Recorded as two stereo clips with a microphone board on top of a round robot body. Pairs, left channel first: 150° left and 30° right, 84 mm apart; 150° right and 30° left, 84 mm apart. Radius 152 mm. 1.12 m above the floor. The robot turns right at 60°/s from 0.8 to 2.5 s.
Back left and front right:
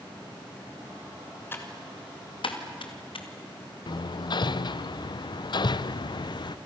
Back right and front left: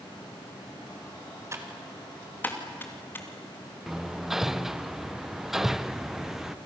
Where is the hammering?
115° left, 0.5 m.